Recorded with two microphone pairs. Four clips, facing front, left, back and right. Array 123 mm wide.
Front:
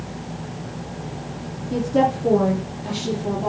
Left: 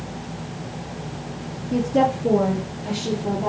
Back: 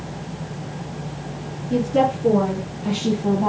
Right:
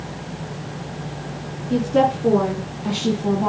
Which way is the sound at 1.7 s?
90° right.